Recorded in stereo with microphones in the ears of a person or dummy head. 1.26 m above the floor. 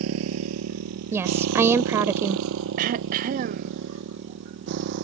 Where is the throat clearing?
40° right (ahead or behind).